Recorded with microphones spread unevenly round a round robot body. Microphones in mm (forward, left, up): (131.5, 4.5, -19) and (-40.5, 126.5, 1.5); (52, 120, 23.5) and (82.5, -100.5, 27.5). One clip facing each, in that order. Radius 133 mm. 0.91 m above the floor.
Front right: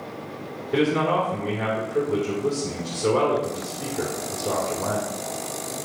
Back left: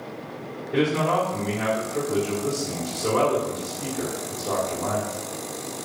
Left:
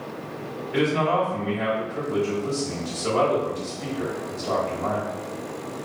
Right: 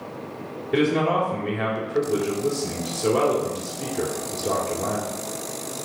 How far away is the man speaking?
About 2.5 m.